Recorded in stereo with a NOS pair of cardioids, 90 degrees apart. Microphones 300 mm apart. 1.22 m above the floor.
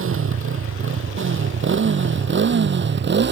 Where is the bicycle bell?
I don't hear a bicycle bell.